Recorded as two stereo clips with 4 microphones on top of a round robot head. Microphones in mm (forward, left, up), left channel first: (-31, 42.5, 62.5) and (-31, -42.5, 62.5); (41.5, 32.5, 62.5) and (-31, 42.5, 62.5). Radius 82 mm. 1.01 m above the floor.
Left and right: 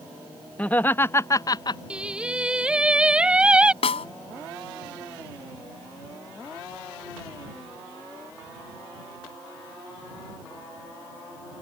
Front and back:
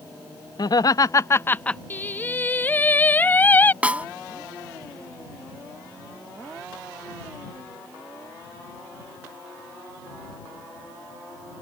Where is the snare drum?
100° left.